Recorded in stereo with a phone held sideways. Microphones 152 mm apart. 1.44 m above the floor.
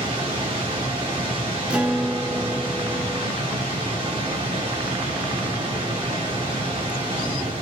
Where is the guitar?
10° right (ahead or behind), 0.5 m.